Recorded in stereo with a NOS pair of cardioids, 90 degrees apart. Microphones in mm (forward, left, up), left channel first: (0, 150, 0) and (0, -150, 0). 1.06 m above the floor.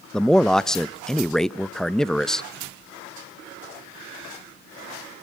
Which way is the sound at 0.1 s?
Straight ahead.